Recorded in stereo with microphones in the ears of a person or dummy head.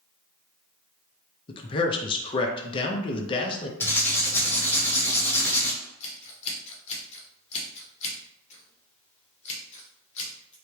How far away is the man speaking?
About 0.6 m.